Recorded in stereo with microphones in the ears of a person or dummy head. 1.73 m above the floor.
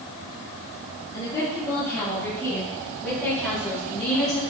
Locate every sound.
1.1 s a woman speaking: 15° left (ahead or behind), 5 m; by 4.4 s centre (ahead or behind), 7.5 m